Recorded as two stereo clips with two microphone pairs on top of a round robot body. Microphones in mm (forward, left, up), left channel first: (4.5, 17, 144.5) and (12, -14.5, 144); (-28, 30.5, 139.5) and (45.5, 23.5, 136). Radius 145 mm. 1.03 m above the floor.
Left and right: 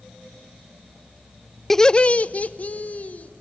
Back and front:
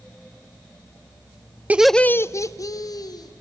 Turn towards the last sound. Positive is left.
turn(degrees=145)